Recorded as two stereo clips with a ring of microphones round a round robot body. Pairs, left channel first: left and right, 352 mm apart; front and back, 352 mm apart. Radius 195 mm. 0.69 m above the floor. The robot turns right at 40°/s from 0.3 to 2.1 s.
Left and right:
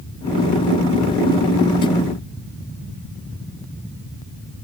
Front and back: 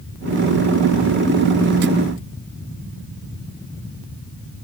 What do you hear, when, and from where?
Only background noise.